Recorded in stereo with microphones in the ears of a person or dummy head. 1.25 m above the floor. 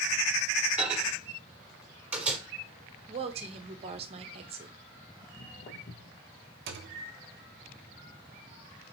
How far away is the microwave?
About 2.5 m.